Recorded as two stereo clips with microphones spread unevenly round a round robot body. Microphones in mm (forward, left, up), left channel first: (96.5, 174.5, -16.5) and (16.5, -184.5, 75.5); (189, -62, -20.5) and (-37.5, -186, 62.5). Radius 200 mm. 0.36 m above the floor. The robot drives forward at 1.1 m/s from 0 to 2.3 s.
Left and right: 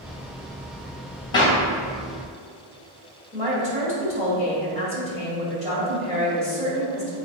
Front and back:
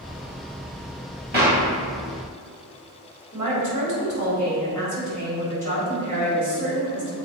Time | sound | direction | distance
1.3 | a clap | 140° left | 1.2 m
3.3 | a woman speaking | 175° left | 2.5 m